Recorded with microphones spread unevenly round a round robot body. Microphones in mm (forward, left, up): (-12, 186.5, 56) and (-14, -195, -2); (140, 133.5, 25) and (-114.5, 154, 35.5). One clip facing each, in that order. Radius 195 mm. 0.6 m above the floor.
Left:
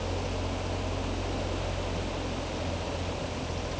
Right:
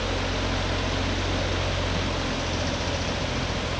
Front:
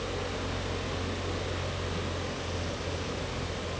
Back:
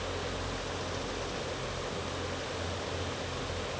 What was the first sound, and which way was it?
Only background noise.